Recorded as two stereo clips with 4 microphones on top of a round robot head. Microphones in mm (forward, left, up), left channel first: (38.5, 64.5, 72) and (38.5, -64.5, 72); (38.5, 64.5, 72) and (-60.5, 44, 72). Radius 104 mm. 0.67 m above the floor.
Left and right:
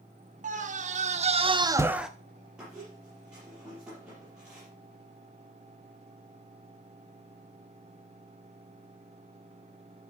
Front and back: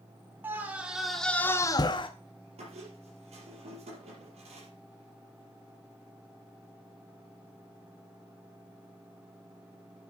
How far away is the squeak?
About 5 m.